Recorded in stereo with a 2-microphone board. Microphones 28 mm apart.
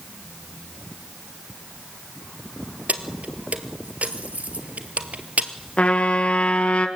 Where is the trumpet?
45° left (ahead or behind), 2 m.